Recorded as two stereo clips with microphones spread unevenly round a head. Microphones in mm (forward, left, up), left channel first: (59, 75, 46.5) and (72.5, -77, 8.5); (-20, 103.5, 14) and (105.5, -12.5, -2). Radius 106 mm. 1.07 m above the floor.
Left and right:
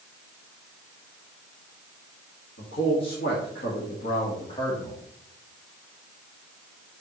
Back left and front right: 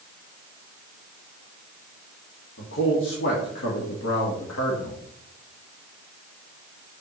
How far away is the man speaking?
About 1.9 m.